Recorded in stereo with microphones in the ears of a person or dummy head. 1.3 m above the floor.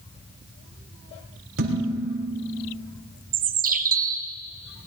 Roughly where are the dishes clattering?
Right.